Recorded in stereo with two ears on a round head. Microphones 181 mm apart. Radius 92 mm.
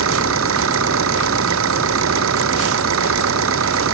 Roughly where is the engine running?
Right.